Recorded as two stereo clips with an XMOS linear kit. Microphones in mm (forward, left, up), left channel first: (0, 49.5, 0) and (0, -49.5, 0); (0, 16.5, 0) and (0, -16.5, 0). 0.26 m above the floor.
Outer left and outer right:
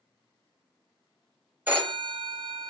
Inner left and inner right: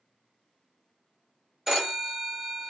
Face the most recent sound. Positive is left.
turn(degrees=-20)  # may be behind; listen again after turning